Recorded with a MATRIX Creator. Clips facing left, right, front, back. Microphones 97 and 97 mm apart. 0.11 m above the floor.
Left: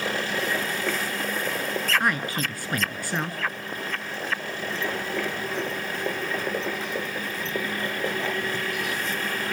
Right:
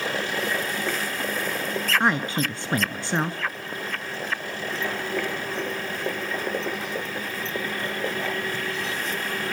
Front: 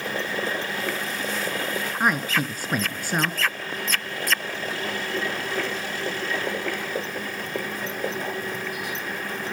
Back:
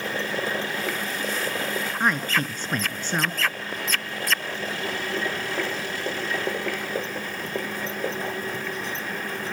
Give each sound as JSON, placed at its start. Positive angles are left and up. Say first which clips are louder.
{"t": 2.0, "sound": "a man speaking", "louder": "right 3 dB, front 1 dB", "azimuth_deg": -70, "distance_m": 1.1}